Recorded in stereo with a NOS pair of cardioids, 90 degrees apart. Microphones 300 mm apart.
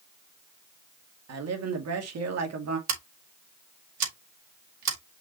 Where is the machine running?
I don't hear a machine running.